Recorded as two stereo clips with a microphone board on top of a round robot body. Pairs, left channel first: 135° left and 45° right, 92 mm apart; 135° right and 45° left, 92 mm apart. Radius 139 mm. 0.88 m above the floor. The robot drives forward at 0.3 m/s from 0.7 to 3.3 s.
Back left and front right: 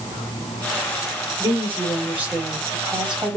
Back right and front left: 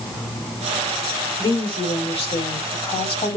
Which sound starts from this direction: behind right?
A woman speaking, at 1.4 s.